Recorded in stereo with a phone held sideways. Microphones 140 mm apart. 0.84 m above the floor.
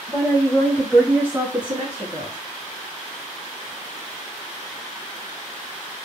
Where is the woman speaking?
35° left (ahead or behind), 1.4 m; by 2.4 s 60° right (ahead or behind), 1.3 m.